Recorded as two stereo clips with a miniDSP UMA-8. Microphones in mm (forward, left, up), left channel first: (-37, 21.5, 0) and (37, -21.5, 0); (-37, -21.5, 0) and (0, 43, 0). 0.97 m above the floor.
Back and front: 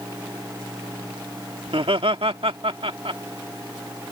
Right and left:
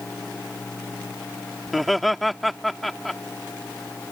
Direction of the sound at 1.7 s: 35° right.